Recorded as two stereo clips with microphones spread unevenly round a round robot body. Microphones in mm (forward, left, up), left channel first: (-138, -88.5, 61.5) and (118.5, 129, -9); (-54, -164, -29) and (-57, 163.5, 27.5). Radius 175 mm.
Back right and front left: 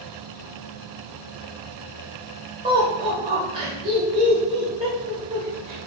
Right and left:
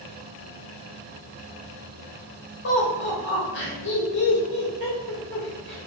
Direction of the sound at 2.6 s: 30° right.